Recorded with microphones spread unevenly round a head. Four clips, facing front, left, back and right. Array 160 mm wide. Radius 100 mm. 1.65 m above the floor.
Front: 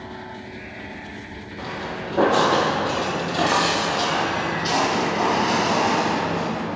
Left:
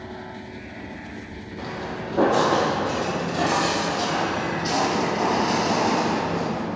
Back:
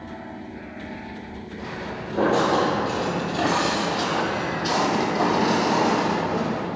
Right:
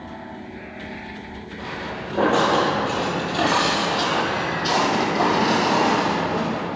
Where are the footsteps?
10° right, 2.5 m; by 6.7 s 100° right, 3 m.